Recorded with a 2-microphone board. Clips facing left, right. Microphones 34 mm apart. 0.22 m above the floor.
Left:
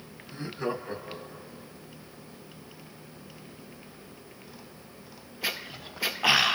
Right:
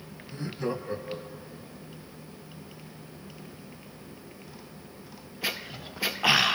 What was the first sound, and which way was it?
Laughter, 25° left (ahead or behind).